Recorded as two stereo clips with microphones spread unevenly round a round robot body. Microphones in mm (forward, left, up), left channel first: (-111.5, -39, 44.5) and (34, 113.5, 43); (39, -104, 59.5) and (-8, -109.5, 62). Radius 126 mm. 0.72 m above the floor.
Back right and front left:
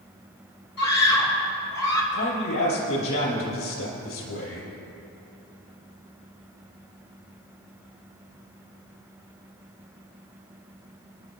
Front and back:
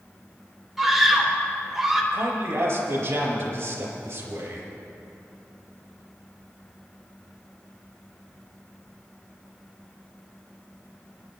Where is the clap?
I don't hear a clap.